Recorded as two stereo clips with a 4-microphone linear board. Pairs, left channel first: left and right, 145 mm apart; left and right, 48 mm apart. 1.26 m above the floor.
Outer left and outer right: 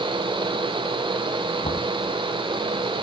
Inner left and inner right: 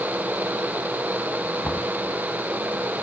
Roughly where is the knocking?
Left.